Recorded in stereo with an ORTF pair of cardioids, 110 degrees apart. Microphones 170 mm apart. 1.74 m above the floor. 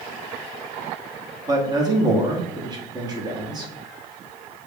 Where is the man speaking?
25° right, 1.3 m.